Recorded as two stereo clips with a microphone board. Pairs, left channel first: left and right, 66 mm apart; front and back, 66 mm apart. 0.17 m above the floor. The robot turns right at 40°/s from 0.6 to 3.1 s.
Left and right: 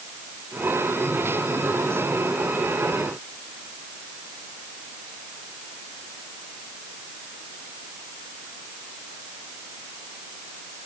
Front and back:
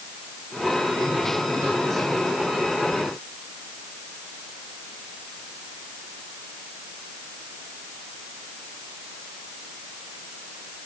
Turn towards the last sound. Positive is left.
No sound to turn to.